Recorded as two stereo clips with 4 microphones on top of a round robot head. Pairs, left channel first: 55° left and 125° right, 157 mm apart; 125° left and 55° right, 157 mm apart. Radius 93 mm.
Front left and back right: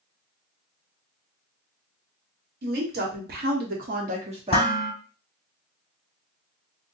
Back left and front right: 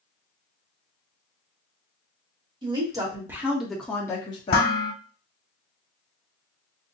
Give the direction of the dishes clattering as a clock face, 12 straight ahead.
9 o'clock.